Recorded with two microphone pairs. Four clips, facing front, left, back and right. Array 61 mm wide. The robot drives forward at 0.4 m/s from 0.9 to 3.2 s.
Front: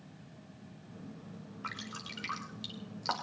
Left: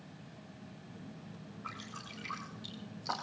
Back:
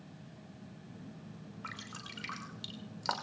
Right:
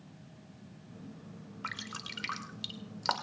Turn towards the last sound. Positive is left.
turn(degrees=-100)